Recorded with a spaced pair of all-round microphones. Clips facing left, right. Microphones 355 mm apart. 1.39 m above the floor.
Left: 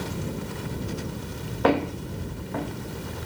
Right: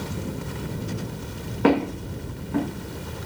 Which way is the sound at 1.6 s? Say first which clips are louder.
Right 3 dB; 35° right (ahead or behind).